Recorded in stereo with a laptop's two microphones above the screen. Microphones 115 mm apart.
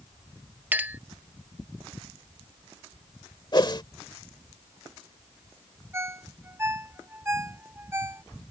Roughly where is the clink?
Centre.